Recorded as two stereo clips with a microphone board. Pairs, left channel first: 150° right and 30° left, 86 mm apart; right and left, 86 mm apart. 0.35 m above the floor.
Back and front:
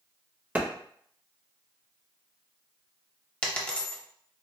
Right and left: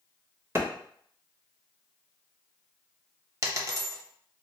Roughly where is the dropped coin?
Behind left.